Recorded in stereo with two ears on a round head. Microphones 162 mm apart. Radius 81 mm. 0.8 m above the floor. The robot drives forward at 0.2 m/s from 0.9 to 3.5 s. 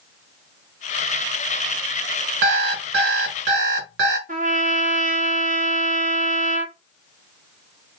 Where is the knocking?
No knocking in this recording.